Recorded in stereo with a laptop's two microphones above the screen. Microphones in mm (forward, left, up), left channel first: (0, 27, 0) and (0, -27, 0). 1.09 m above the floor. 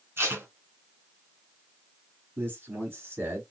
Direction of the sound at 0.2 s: 50° right (ahead or behind).